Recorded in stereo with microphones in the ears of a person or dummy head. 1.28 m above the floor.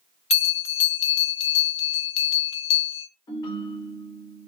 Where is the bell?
35° left (ahead or behind), 1.0 m.